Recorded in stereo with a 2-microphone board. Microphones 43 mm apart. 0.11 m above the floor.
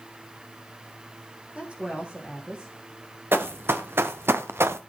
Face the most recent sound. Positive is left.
turn(degrees=-70)  # may be behind; listen again after turning